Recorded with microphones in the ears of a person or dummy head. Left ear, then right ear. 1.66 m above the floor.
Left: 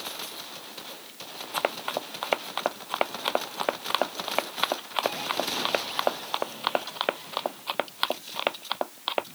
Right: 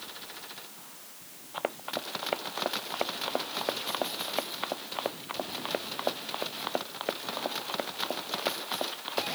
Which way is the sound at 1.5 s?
75° left (ahead or behind).